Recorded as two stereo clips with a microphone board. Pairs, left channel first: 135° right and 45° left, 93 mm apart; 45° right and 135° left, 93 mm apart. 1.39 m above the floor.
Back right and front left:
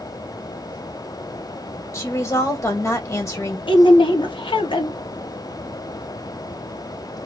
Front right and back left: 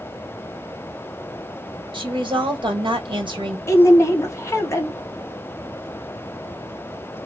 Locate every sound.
1.9 s a woman speaking: 165° left, 1.4 m
3.7 s a woman speaking: 105° right, 1.2 m